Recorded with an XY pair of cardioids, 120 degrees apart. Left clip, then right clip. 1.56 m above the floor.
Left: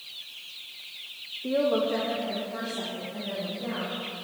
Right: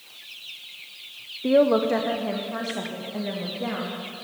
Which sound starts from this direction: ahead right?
A woman speaking, at 1.4 s.